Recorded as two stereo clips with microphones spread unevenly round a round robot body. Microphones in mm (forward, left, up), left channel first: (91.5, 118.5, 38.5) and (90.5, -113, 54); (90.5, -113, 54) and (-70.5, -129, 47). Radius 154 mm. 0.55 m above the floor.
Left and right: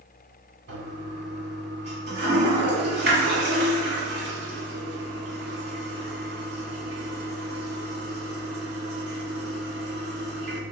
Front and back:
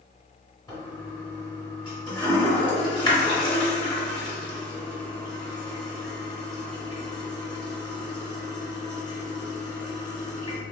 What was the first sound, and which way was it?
A toilet flushing, 55° right.